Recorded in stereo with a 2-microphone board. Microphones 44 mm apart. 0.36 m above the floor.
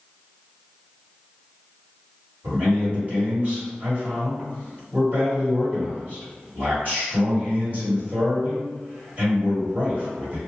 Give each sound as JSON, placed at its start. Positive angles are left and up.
{"t": 2.4, "sound": "a man speaking", "side_deg": -40, "distance_m": 1.6}